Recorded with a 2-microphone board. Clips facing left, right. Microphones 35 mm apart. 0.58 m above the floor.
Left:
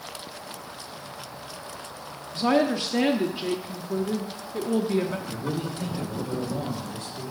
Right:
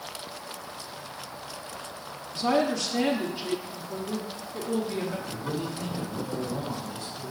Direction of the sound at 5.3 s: 50° left (ahead or behind).